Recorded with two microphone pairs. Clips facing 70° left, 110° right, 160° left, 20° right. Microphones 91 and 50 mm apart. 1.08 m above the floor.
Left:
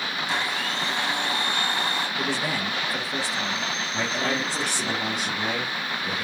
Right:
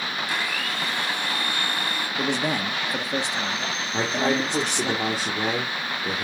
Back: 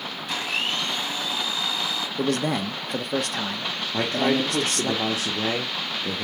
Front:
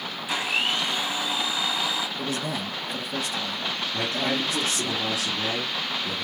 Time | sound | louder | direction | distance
0.3 | a blender | left 3 dB, front 2 dB | 50° left | 1.0 m
2.2 | a man speaking | right 6 dB, back 5 dB | straight behind | 0.6 m
3.9 | a man speaking | right 4 dB, back 6 dB | 160° right | 0.8 m